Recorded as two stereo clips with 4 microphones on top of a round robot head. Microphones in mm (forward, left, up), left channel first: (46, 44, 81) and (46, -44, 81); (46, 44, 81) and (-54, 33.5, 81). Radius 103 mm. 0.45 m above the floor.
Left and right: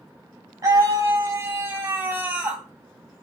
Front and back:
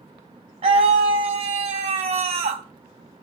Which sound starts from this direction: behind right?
A scream, at 0.6 s.